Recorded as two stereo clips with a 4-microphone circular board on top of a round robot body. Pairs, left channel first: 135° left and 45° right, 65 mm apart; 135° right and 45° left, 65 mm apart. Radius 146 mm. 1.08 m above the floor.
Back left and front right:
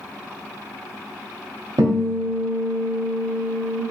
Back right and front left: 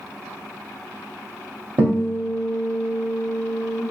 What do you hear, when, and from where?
1.8 s a guitar: 25° right, 2 m